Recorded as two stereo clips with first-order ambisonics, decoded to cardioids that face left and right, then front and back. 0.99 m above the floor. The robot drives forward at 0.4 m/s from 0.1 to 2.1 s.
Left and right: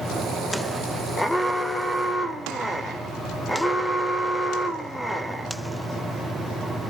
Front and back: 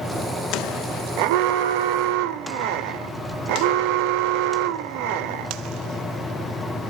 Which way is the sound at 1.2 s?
Straight behind.